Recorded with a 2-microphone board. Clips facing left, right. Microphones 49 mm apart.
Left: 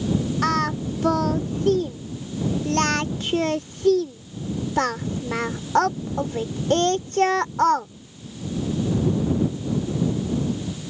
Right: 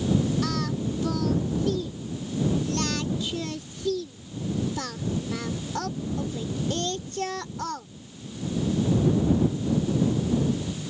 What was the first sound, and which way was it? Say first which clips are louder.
Singing: left 6 dB; 55° left (ahead or behind).